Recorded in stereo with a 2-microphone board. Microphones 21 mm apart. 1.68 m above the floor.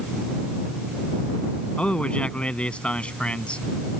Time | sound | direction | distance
1.8 | a man speaking | 65° left (ahead or behind) | ?